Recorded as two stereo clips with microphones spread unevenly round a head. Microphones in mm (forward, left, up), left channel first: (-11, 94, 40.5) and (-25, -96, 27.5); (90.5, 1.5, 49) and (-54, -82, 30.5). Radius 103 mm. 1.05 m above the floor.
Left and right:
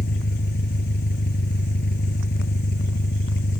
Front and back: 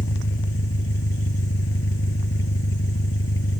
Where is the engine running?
45° left.